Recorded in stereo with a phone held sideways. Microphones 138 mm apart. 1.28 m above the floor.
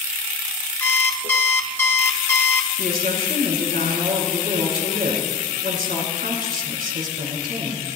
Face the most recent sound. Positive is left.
turn(degrees=-75)  # may be behind; listen again after turning